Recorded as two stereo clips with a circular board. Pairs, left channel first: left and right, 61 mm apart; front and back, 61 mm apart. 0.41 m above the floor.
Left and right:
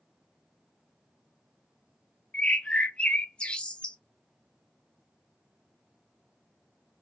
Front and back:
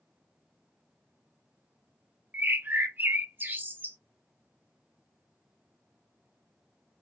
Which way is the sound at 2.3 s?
150° left.